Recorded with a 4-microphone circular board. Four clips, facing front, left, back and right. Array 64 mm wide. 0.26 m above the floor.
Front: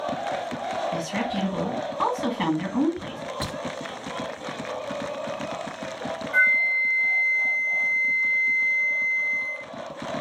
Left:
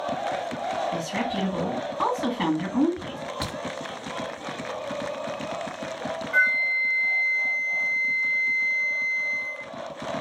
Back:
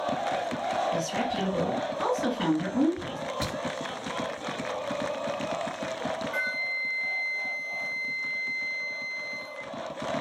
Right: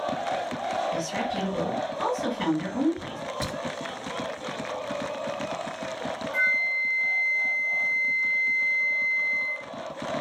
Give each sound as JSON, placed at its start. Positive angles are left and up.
{"t": 0.9, "sound": "a woman speaking", "azimuth_deg": 45, "distance_m": 2.0}
{"t": 3.4, "sound": "a crack", "azimuth_deg": 65, "distance_m": 1.9}
{"t": 6.3, "sound": "a flute", "azimuth_deg": 70, "distance_m": 1.3}